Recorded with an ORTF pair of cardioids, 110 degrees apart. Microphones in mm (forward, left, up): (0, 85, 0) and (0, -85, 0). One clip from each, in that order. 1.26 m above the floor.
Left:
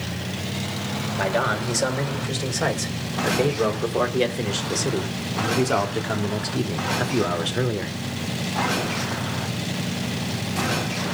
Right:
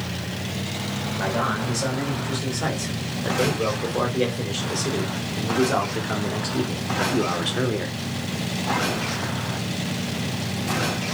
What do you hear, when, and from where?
1.2 s a man speaking: 40° left, 5.5 m; by 8.0 s straight ahead, 3 m